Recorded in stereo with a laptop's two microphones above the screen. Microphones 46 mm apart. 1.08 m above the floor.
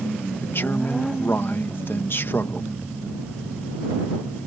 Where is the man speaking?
55° left (ahead or behind).